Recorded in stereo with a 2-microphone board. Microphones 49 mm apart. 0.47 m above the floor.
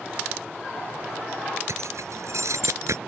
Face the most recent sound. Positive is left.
turn(degrees=-85)